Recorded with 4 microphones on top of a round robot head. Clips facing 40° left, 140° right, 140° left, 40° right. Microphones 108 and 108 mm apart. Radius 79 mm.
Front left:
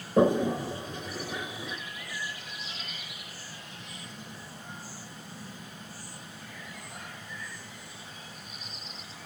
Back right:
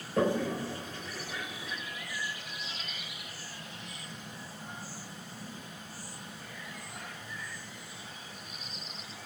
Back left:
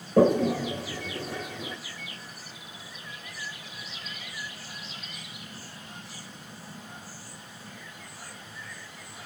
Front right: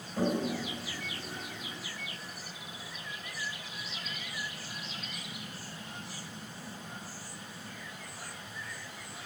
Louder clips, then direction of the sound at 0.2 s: Front left 6 dB, back left 10 dB; 110° left.